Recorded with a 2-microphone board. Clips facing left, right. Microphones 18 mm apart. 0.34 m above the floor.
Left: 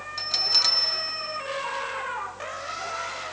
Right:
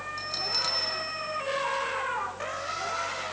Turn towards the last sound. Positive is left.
turn(degrees=30)  # may be behind; listen again after turning